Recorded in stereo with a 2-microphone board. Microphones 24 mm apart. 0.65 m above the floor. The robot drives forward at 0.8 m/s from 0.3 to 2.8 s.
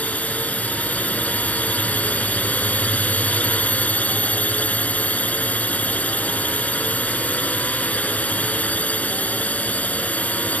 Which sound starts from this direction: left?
A drone, at 0.0 s.